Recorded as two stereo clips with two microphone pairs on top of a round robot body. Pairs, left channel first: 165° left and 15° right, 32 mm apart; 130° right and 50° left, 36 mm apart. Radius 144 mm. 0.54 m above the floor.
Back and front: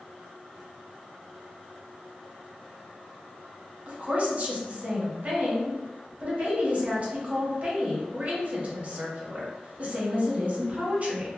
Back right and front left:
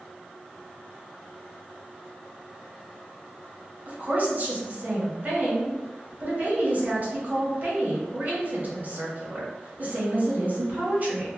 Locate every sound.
3.9 s a woman speaking: 20° left, 1.4 m